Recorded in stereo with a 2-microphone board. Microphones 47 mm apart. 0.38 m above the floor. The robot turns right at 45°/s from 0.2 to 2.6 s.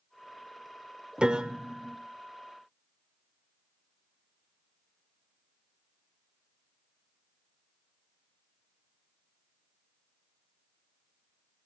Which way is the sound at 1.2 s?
20° right (ahead or behind).